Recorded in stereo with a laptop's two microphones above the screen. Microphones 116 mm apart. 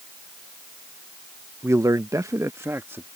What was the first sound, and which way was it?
A man speaking, 20° right (ahead or behind).